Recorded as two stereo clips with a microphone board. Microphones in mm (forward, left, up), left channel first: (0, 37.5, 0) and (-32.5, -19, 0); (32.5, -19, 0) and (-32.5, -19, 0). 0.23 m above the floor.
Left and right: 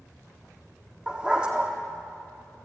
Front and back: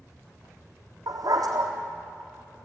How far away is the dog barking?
About 3.5 m.